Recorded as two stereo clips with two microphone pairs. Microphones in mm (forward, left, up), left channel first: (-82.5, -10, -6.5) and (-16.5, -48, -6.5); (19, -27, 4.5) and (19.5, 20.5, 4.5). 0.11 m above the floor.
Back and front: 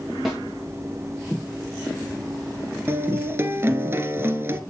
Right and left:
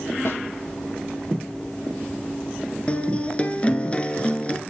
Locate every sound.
0.2 s a snare drum: 115° right, 5.5 m
2.9 s a guitar: 50° right, 1.1 m